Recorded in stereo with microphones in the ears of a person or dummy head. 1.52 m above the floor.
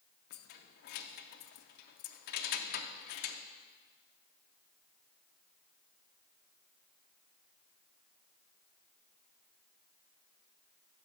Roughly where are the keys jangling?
Left.